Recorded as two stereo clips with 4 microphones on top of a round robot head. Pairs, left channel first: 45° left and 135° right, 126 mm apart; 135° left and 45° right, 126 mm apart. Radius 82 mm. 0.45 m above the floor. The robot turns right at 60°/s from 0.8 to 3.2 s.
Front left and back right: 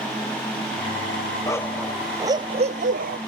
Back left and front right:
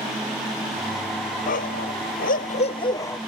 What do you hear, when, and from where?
1.5 s a dog barking: 110° left; by 3.2 s 145° right